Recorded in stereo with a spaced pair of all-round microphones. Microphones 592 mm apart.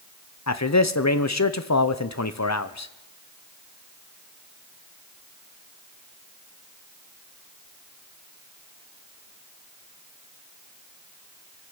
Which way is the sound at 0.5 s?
30° left (ahead or behind).